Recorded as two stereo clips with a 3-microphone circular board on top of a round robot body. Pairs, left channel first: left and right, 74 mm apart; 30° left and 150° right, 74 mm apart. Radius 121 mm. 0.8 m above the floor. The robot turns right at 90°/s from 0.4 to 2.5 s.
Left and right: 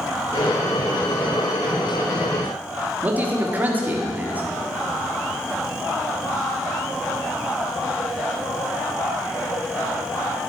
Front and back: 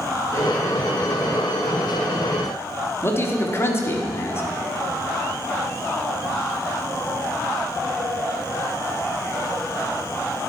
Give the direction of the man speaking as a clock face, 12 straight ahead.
1 o'clock.